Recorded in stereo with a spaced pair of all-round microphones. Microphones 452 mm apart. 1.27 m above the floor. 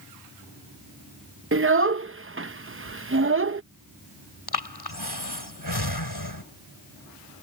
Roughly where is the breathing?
Left.